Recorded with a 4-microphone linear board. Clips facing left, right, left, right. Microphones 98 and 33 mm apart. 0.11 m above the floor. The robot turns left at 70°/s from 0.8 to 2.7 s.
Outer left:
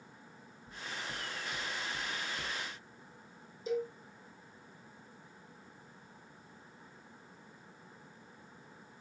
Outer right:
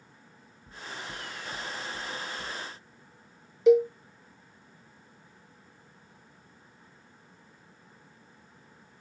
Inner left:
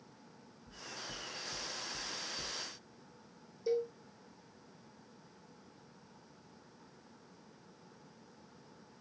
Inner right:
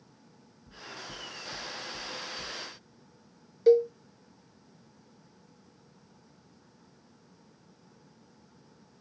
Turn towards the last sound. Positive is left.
turn(degrees=-70)  # may be behind; listen again after turning